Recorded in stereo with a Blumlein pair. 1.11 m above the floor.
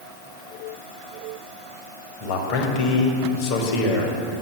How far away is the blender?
No blender in this recording.